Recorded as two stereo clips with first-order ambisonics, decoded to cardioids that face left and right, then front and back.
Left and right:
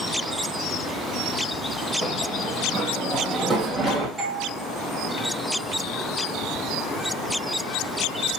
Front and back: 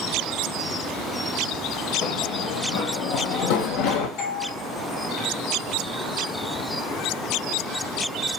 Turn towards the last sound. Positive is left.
turn(degrees=-5)